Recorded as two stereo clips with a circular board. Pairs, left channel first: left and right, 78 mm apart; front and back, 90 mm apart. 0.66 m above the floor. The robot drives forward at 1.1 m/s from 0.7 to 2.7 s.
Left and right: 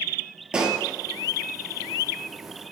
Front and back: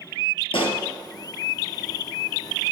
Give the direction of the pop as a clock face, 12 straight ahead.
12 o'clock.